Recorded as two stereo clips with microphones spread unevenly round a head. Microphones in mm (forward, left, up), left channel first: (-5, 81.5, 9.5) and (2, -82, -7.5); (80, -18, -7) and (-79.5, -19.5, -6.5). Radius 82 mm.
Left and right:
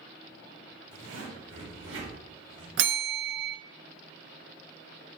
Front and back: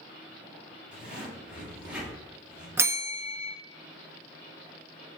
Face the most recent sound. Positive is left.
turn(degrees=-105)